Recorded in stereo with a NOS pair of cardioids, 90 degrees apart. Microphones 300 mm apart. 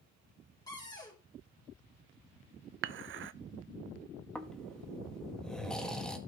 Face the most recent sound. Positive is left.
turn(degrees=0)